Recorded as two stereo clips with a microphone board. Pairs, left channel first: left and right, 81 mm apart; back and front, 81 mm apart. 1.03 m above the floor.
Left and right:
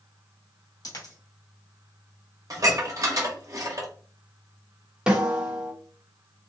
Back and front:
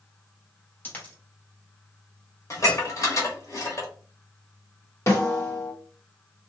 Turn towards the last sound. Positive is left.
turn(degrees=-165)